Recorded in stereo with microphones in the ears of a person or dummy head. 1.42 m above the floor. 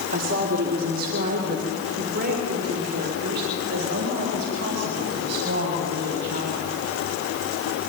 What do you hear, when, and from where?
0.1 s a woman speaking: 50° right (ahead or behind), 2.5 m; by 6.7 s 60° right (ahead or behind), 7 m